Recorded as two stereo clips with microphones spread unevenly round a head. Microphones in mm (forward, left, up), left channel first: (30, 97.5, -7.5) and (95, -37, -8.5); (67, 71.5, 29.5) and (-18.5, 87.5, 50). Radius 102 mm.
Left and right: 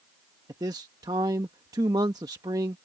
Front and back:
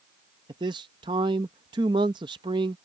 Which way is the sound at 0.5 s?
135° right.